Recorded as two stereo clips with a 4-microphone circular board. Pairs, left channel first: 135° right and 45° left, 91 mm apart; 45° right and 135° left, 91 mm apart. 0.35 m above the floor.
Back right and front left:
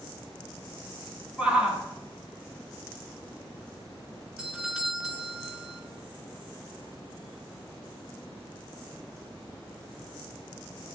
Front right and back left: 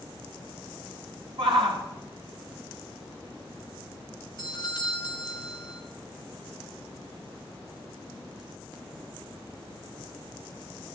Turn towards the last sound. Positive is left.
turn(degrees=-30)